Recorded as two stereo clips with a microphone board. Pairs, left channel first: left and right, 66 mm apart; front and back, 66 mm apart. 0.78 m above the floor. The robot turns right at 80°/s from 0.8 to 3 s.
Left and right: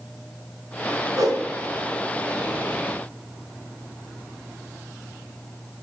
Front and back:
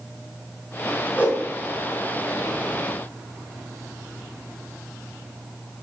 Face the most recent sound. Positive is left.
turn(degrees=85)